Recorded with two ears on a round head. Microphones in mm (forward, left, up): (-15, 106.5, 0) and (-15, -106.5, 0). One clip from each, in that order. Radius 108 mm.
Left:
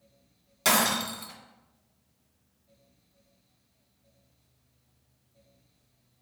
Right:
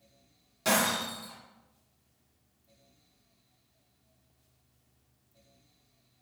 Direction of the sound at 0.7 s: 40° left (ahead or behind).